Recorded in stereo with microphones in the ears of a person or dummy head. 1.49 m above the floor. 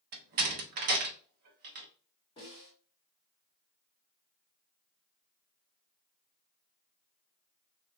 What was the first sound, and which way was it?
A door slam, 45° right (ahead or behind).